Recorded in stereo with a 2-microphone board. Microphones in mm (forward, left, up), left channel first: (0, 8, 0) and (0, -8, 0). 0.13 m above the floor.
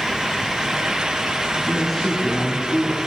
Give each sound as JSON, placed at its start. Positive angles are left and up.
{"t": 1.6, "sound": "a man speaking", "side_deg": 5, "distance_m": 7.5}